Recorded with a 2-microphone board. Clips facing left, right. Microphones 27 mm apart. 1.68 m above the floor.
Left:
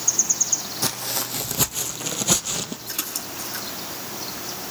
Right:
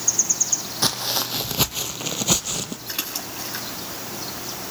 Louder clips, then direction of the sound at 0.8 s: Right 4 dB; 45° right (ahead or behind).